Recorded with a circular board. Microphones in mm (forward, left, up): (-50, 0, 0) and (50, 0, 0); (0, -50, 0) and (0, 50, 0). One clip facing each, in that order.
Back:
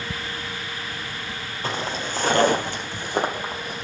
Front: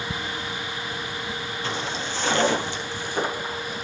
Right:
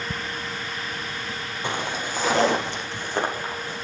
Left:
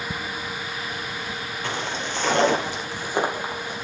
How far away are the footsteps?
About 2 m.